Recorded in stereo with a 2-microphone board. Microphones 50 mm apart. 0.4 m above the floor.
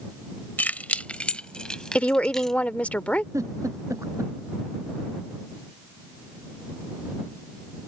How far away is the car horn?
I don't hear a car horn.